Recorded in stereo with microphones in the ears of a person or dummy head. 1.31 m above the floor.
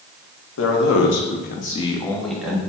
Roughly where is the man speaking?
Left.